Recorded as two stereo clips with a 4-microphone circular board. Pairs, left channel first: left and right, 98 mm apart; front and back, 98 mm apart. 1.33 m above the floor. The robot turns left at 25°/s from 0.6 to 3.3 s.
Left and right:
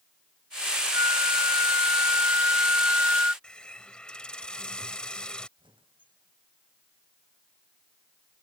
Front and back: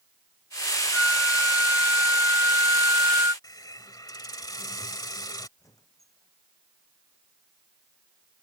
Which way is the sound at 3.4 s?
15° left.